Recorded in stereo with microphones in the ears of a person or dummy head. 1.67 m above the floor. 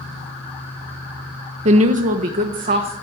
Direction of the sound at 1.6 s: 35° right (ahead or behind).